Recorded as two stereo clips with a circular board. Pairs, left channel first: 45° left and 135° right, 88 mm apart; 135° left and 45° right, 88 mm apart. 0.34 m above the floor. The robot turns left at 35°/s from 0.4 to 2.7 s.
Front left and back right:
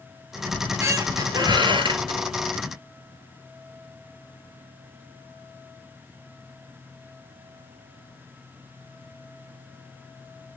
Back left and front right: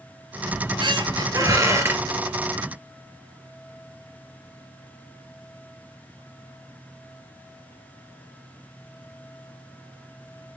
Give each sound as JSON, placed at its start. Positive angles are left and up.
{"t": 0.5, "sound": "a squeak", "azimuth_deg": -65, "distance_m": 1.5}